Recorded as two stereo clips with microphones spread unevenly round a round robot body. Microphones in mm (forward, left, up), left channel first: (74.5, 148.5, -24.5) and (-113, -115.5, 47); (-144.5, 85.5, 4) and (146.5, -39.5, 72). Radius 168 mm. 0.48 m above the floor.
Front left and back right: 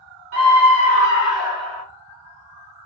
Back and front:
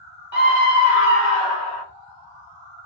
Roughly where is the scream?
Behind.